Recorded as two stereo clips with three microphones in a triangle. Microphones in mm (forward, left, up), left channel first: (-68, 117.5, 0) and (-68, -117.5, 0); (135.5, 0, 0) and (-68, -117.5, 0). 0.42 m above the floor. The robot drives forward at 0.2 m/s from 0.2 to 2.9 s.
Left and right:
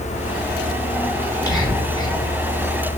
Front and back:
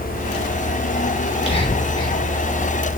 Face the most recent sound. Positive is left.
turn(degrees=80)